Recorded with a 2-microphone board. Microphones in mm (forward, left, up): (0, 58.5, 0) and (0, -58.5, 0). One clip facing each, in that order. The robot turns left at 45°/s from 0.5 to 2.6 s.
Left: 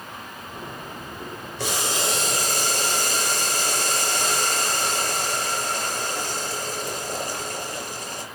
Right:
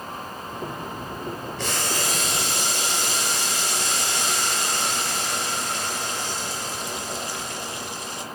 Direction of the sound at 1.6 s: 170° left.